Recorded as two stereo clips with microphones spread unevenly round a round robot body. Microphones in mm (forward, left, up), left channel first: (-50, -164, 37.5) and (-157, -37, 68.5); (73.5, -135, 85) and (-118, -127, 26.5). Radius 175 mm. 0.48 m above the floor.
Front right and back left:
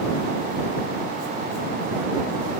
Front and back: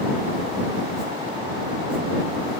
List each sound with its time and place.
Only background noise.